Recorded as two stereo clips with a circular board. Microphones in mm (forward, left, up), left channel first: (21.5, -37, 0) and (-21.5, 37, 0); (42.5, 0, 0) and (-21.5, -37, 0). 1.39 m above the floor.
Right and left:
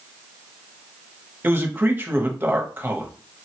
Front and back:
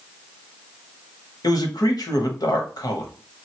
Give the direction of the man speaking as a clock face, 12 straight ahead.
10 o'clock.